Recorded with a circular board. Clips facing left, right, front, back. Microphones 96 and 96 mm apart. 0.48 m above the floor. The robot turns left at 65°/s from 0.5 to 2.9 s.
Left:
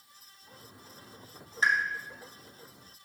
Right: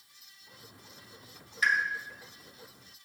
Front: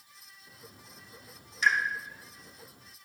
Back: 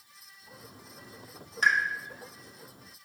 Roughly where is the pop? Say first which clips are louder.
Left 1 dB, back 1 dB; behind left.